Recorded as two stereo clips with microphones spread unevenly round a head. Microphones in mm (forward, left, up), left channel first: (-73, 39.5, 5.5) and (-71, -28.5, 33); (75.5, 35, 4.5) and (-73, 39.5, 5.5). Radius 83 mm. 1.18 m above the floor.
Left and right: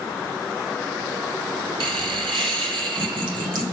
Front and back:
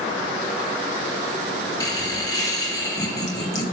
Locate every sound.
1.8 s laughter: 70° right, 1.2 m